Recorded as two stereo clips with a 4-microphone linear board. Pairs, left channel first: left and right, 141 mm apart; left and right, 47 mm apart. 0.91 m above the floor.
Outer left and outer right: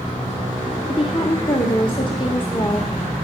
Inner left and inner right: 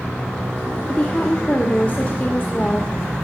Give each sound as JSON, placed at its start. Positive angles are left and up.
{"t": 0.9, "sound": "a woman speaking", "side_deg": 35, "distance_m": 1.6}